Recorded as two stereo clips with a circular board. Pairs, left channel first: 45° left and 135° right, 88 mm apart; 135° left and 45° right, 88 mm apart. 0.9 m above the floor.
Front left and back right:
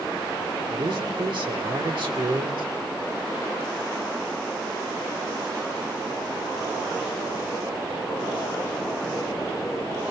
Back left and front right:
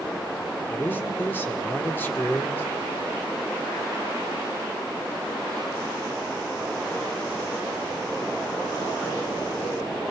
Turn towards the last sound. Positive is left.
turn(degrees=-155)